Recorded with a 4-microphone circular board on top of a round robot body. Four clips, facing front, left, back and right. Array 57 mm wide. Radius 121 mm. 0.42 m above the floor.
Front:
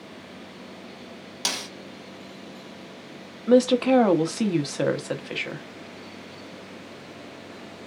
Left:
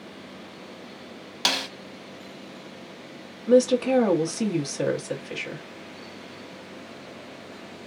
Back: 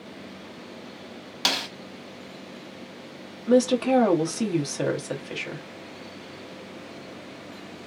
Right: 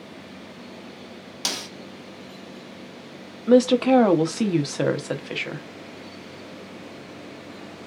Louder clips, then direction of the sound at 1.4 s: Left 6 dB, back 5 dB; 125° left.